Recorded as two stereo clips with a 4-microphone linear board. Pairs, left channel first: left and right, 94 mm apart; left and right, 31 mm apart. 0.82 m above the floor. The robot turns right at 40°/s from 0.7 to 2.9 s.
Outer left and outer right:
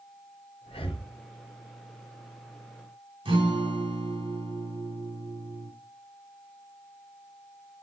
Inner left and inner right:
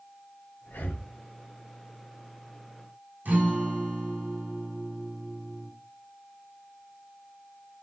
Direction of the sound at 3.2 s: 65° right (ahead or behind).